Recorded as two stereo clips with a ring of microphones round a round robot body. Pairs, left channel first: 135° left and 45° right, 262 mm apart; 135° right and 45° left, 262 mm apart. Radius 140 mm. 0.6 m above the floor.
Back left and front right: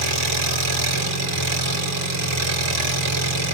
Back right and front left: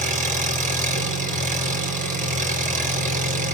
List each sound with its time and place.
0.0 s an engine running: 15° right, 4.5 m